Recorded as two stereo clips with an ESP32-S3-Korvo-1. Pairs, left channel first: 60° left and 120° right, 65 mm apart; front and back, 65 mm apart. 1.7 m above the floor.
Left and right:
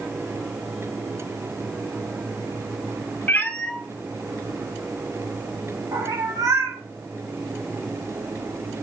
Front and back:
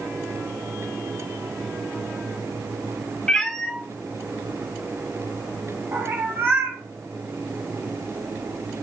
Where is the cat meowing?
65° left, 1.0 m; by 6.8 s 125° right, 2.5 m.